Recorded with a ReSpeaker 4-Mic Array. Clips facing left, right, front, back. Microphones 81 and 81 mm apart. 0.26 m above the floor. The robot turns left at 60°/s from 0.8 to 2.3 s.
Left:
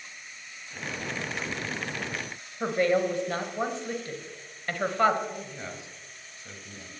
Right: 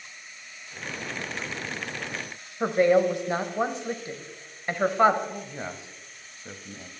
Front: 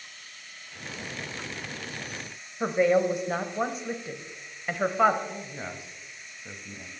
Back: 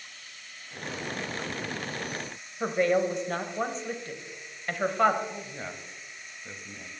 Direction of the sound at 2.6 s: 65° right.